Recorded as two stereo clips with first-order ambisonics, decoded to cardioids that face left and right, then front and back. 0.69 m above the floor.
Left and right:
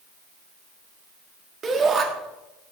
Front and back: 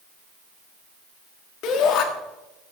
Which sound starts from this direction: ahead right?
A shout, at 1.6 s.